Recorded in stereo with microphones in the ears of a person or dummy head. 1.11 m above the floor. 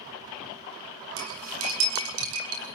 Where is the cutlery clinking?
90° right, 9 m.